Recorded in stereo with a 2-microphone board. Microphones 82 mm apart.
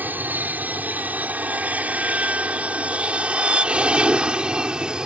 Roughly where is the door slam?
No door slam in this recording.